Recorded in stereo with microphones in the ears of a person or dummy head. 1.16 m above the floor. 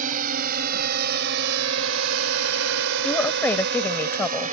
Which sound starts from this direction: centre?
A woman speaking, at 3.0 s.